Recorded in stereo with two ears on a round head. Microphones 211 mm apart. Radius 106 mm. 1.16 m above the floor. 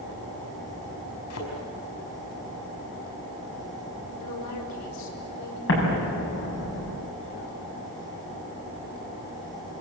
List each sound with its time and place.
1.3 s a thud: 70° left (ahead or behind), 5.5 m
4.2 s a woman speaking: 80° left, 5 m
5.7 s an explosion: 55° left (ahead or behind), 8 m